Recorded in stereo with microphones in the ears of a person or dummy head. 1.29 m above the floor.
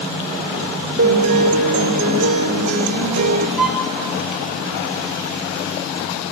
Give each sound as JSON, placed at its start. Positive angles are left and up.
{"t": 1.0, "sound": "a guitar", "side_deg": -45, "distance_m": 2.5}
{"t": 3.6, "sound": "a violin", "side_deg": 0, "distance_m": 3.5}